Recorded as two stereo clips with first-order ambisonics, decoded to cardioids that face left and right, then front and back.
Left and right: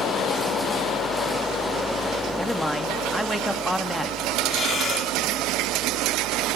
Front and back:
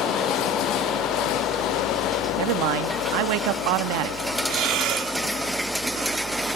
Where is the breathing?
155° left, 2.5 m.